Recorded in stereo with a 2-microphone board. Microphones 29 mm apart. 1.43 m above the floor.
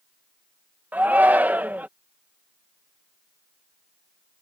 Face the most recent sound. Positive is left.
turn(degrees=-90)